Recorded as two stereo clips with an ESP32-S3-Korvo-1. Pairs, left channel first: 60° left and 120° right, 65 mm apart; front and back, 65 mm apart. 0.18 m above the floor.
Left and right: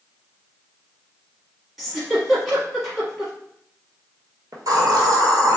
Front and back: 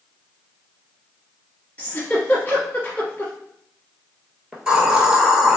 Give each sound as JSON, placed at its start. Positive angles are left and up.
{"t": 1.8, "sound": "a giggle", "azimuth_deg": -35, "distance_m": 1.0}
{"t": 4.5, "sound": "a hiss", "azimuth_deg": -105, "distance_m": 1.0}